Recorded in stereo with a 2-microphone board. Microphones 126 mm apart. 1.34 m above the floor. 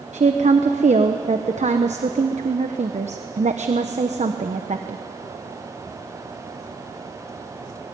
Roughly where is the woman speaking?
Right.